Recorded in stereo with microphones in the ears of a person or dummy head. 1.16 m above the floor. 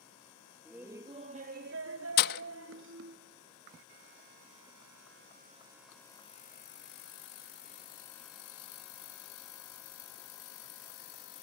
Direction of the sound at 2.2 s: 55° left (ahead or behind).